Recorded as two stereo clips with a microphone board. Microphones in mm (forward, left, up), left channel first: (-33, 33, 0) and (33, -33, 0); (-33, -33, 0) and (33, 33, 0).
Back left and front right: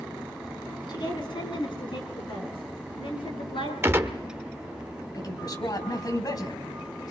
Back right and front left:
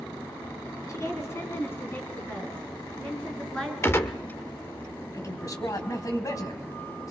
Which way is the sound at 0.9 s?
170° left.